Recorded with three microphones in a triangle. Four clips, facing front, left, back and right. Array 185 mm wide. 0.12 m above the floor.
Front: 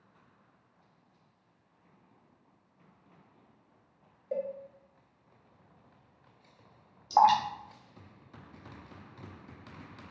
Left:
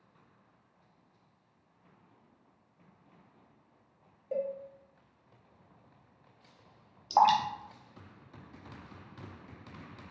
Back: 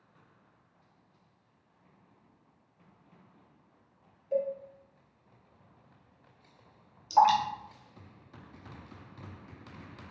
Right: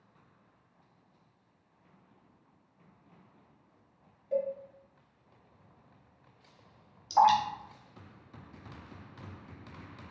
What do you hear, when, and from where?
4.3 s a cowbell: 40° left, 1.2 m
7.1 s dripping: 45° left, 0.6 m